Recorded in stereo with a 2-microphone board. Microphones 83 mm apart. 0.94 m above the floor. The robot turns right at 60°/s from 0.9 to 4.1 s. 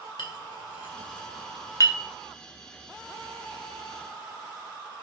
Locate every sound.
0.2 s a clink: 80° left, 1.8 m; by 2.0 s 35° left (ahead or behind), 1.8 m